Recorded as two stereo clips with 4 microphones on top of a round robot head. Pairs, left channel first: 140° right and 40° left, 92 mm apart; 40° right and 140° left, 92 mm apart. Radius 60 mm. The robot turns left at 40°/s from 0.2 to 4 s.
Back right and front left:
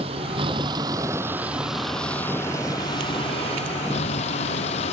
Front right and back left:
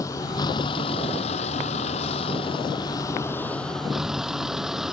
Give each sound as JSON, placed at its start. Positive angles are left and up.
{"t": 0.0, "sound": "a vehicle", "azimuth_deg": 15}